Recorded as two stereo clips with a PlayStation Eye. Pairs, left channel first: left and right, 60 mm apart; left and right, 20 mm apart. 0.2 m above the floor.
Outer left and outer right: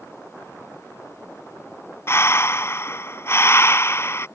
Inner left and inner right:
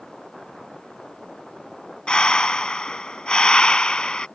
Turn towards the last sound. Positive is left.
turn(degrees=50)  # may be behind; listen again after turning